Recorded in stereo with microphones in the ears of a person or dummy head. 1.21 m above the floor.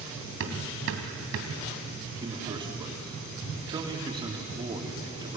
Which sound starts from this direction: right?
Hammering, at 0.4 s.